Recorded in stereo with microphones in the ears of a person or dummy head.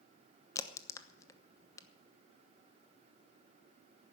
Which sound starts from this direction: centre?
A crack, at 0.6 s.